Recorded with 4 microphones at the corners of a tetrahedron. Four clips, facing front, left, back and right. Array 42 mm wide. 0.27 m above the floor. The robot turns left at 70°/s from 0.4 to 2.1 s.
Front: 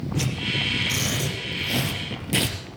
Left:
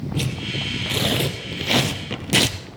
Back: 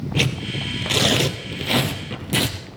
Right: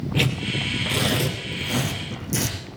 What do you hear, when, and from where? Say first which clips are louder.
0.1 s tearing paper: right 4 dB, back 3 dB; 150° right, 1.1 m; by 2.6 s 95° left, 1.1 m